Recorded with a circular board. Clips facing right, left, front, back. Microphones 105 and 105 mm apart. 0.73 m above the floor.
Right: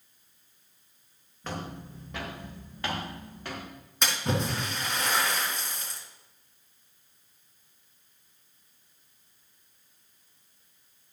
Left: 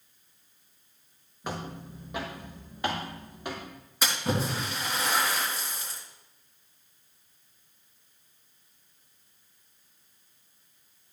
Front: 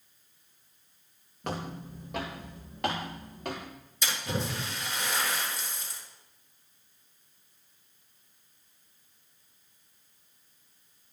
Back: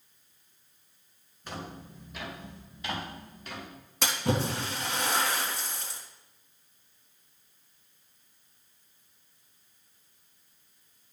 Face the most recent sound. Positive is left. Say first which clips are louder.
# even, back 5 dB
turn(degrees=175)